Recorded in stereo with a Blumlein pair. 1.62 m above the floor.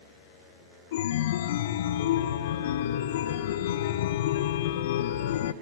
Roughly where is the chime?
Ahead left.